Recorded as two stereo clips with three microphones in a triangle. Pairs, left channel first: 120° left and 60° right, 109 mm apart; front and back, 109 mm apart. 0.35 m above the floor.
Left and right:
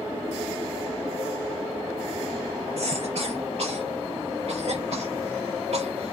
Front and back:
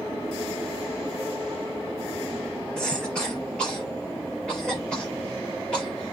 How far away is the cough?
About 6 m.